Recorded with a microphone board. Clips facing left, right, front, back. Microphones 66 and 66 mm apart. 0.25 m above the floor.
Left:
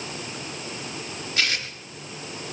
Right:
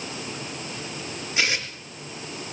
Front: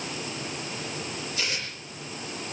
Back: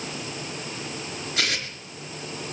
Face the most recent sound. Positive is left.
turn(degrees=-165)